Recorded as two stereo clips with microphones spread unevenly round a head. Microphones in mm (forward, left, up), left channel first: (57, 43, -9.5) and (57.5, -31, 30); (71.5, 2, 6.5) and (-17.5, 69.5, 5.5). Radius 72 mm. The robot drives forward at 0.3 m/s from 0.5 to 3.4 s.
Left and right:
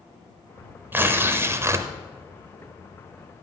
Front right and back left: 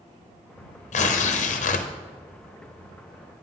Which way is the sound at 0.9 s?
25° right.